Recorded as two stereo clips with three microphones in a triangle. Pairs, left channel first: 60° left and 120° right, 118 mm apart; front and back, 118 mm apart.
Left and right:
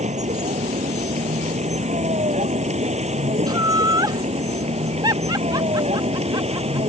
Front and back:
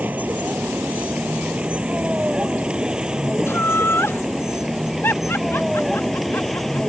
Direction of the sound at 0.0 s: 105° right.